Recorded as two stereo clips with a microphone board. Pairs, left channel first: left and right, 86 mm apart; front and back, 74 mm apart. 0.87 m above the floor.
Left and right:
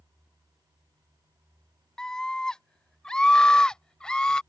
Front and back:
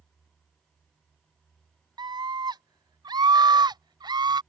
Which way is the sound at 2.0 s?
170° left.